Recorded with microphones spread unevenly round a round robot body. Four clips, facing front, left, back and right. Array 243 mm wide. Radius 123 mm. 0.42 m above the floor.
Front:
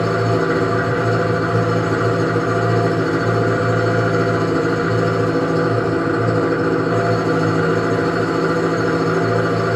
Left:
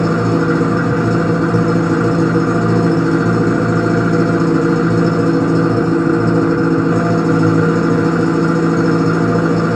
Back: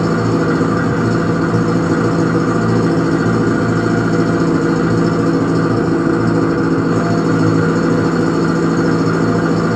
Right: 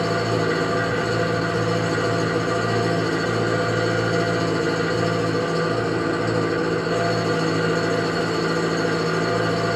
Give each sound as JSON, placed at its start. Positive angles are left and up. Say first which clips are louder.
{"t": 0.0, "sound": "an engine running", "louder": "left 7 dB, back 3 dB", "azimuth_deg": 145, "distance_m": 1.1}